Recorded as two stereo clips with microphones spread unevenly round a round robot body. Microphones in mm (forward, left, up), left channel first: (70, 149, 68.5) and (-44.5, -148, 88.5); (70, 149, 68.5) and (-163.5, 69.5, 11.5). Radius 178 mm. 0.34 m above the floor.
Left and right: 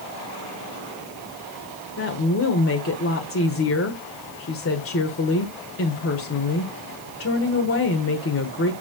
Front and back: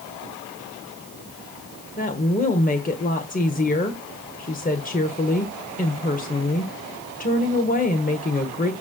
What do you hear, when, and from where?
2.0 s a woman speaking: 80° left, 1.4 m